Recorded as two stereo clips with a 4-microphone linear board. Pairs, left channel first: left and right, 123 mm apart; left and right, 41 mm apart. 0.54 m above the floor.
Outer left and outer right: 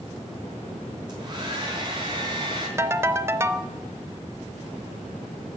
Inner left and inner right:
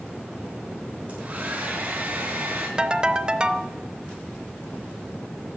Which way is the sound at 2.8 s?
20° right (ahead or behind).